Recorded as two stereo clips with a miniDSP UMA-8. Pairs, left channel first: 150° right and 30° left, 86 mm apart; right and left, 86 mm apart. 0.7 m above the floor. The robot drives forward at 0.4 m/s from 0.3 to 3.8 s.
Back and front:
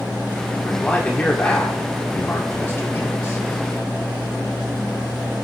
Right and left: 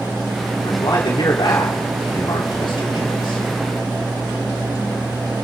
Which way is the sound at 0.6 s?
65° right.